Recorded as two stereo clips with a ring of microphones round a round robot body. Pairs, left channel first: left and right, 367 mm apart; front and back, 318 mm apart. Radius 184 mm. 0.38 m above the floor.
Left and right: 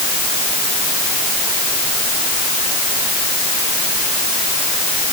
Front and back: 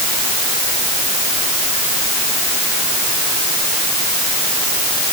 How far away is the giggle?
No giggle in this recording.